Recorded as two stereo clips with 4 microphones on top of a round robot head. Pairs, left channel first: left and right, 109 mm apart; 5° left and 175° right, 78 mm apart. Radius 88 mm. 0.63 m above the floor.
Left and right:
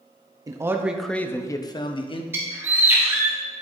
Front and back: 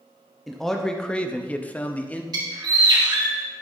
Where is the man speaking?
85° right, 0.9 m; by 2.2 s 75° left, 1.3 m.